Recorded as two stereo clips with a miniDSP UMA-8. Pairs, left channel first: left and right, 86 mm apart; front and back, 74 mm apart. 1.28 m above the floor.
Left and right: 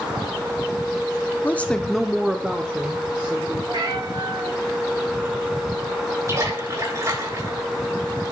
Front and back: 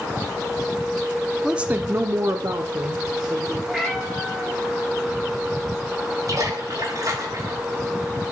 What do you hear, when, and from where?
1.4 s a woman speaking: 110° left, 0.5 m; by 3.6 s 160° right, 1.3 m
3.7 s a cat meowing: 95° right, 2.5 m
6.3 s a splash: 140° right, 5 m